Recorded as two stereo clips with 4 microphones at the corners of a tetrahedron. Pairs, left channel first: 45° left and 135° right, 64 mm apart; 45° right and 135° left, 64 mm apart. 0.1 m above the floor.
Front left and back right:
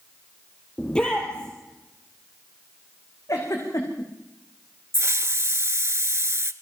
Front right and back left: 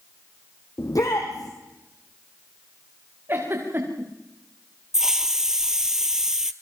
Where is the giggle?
80° left, 5.5 m.